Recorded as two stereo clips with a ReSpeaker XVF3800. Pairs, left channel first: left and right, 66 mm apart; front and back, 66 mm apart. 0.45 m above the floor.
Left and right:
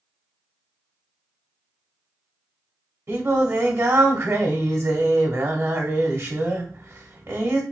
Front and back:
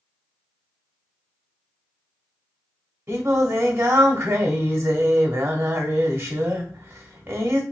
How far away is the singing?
About 0.9 m.